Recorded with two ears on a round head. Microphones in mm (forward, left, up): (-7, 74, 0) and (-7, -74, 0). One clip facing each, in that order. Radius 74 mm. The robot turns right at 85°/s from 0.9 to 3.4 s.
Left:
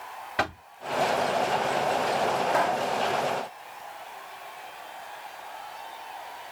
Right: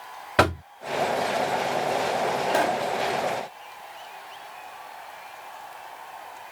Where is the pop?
120° right; by 2.9 s 90° right.